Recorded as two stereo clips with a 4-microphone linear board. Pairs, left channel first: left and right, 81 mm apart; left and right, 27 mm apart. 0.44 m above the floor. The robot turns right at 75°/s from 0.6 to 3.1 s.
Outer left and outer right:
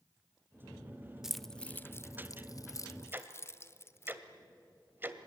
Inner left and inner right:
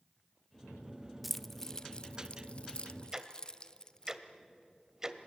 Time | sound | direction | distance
1.2 | keys jangling | 5° right (ahead or behind) | 0.7 m
3.1 | ticking | 25° right (ahead or behind) | 1.4 m